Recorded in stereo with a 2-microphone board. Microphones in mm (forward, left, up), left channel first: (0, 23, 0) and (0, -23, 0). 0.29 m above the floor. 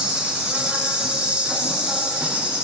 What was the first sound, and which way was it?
An insect, 25° right (ahead or behind).